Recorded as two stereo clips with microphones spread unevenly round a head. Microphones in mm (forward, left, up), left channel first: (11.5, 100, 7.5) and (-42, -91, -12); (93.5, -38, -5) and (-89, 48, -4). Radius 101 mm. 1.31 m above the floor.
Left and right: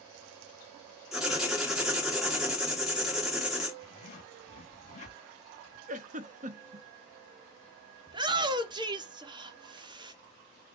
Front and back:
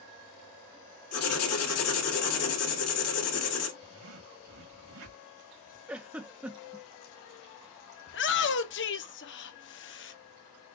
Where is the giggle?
125° right, 0.7 m.